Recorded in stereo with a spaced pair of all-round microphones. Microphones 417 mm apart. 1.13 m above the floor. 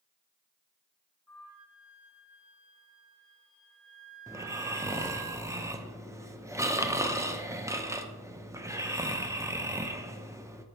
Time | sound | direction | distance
1.3 | a flute | 45° right (ahead or behind) | 2.5 m
4.3 | snoring | 10° right (ahead or behind) | 0.5 m